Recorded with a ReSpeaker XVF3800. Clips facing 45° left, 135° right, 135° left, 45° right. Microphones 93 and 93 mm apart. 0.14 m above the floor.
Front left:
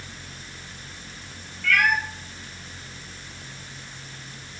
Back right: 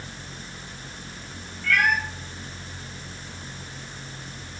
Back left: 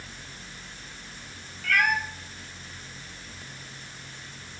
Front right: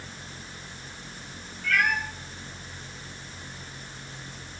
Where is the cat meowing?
165° left, 0.7 m.